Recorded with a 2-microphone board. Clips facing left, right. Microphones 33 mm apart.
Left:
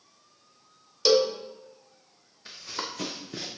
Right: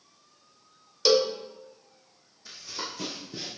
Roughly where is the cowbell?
Centre.